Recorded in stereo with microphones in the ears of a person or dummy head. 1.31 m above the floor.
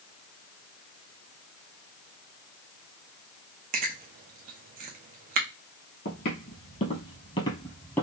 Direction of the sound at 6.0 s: 45° left (ahead or behind).